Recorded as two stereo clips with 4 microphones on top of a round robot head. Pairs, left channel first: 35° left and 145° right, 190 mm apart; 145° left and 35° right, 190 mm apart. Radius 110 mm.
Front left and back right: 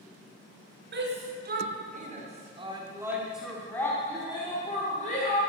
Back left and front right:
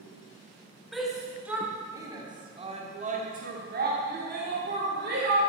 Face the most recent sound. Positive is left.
turn(degrees=-10)